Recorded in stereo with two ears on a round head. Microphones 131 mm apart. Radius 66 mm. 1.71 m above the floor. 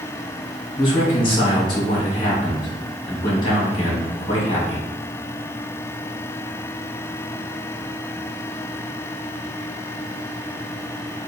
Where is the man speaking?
35° left (ahead or behind), 1.8 m.